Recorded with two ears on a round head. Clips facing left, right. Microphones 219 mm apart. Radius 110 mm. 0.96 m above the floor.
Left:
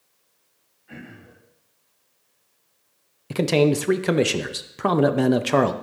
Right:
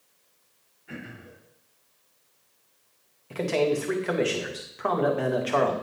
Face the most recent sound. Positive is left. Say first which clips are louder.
# left 6 dB
turn(degrees=50)  # may be behind; listen again after turning